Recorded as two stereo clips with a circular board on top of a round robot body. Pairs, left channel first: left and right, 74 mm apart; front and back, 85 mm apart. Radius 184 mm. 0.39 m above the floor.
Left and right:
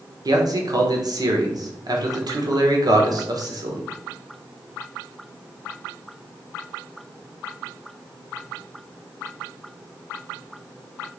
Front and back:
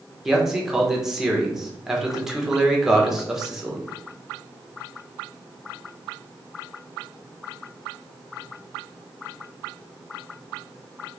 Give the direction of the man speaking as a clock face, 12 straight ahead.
3 o'clock.